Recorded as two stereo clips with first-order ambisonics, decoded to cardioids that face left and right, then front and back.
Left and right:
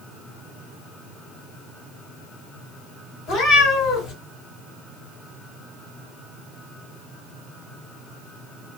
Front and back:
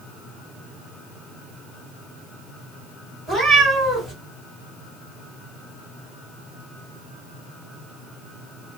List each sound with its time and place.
3.3 s a cat meowing: 105° left, 2 m